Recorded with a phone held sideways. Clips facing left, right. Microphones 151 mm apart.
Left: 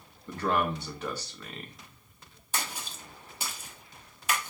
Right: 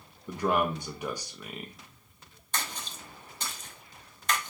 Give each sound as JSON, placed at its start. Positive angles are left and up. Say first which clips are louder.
{"t": 0.3, "sound": "a man speaking", "louder": "right 1 dB", "side_deg": -15, "distance_m": 0.6}
{"t": 2.5, "sound": "a splash", "louder": "even", "side_deg": 10, "distance_m": 0.9}